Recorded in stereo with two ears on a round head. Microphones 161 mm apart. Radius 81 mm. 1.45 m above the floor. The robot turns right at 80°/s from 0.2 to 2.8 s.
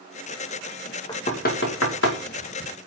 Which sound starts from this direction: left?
Knocking, at 1.1 s.